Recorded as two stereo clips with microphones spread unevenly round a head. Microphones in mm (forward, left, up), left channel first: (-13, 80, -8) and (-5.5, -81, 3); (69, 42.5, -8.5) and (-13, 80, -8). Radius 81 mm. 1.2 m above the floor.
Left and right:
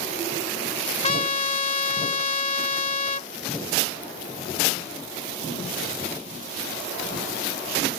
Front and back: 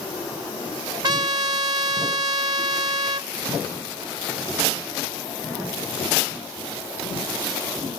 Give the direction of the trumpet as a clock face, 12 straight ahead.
7 o'clock.